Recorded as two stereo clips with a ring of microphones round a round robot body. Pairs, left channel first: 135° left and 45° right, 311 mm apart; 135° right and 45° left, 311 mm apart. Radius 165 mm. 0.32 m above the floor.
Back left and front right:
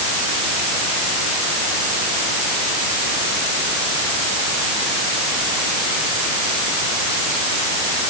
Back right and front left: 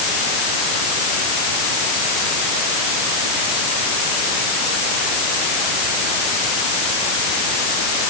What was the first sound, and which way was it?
Only background noise.